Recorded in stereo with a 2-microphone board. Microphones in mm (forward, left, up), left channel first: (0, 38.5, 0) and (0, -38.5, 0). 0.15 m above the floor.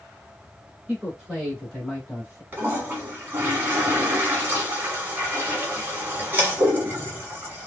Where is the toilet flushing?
20° right (ahead or behind), 1.3 m.